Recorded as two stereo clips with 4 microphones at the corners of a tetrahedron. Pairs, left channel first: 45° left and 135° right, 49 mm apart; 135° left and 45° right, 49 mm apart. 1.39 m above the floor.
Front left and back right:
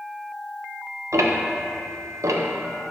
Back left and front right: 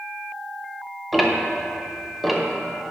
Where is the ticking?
135° right, 0.7 m.